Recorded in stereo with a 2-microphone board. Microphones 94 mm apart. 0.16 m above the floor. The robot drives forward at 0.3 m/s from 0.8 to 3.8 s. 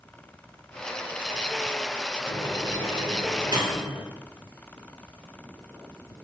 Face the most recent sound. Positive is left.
turn(degrees=-55)  # may be behind; listen again after turning